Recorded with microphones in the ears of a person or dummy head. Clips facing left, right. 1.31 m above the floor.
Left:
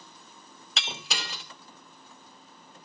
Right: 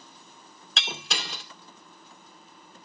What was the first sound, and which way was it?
Breaking glass, 5° left (ahead or behind).